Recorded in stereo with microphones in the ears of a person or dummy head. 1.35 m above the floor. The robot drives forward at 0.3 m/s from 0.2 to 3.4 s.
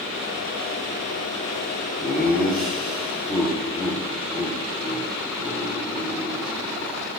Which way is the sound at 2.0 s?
Centre (ahead or behind).